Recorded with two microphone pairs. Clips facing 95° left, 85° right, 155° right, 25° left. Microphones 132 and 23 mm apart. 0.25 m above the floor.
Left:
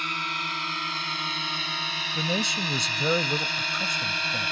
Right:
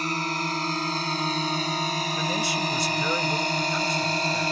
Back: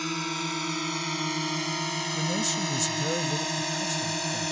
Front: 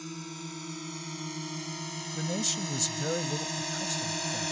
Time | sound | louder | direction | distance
0.0 | a drone | right 6 dB, back 10 dB | 130° right | ?
2.1 | a man speaking | left 2 dB, back 1 dB | 100° left | ?